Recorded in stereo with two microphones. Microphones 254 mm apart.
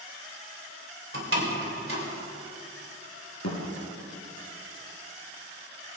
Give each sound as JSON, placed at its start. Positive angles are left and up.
{"t": 1.1, "sound": "a door slam", "side_deg": -55, "distance_m": 3.0}
{"t": 3.4, "sound": "a thud", "side_deg": 80, "distance_m": 4.5}